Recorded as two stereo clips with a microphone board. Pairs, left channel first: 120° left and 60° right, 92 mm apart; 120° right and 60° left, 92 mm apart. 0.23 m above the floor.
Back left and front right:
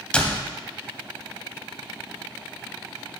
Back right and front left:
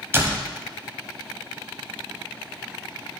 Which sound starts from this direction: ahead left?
A door slam, at 0.1 s.